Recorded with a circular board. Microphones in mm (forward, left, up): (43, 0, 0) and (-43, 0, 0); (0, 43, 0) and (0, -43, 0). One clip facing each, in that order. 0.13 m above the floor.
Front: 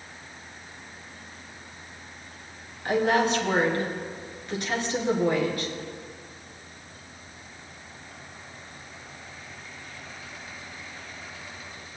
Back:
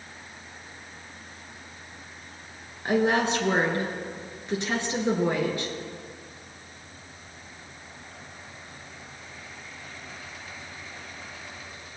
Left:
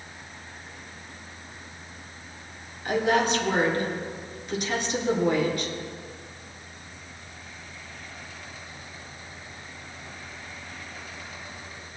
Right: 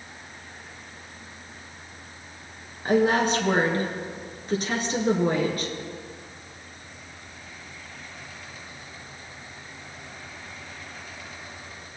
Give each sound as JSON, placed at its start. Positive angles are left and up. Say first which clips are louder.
{"t": 2.9, "sound": "a woman speaking", "louder": "even, right 2 dB", "azimuth_deg": -125, "distance_m": 2.5}